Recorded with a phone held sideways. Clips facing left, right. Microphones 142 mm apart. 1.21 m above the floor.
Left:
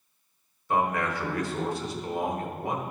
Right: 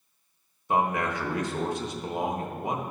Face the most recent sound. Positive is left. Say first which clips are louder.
# right 1 dB
turn(degrees=-20)  # may be behind; listen again after turning